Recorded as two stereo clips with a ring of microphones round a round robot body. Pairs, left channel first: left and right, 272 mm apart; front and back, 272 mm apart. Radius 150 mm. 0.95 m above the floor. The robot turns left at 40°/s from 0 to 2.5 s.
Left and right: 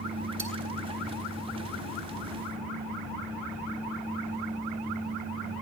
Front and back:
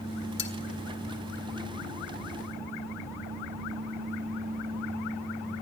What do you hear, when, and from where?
0.4 s cutlery clinking: straight ahead, 1.5 m; by 0.5 s 5° right, 1.5 m